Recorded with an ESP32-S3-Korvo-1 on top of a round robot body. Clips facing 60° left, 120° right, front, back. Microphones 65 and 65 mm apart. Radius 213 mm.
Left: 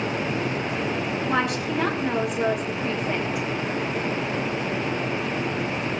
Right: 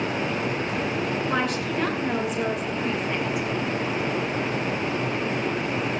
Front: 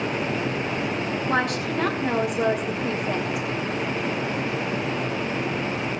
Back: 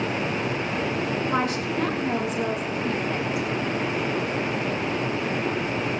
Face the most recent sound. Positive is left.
turn(degrees=-25)